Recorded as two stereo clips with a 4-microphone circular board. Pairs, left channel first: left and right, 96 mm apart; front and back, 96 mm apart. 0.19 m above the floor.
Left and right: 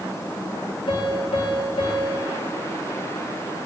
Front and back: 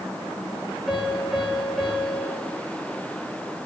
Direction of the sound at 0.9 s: 90° left.